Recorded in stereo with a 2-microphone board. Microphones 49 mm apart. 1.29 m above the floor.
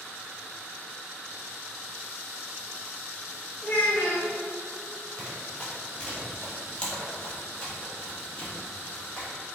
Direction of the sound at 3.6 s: 40° left (ahead or behind).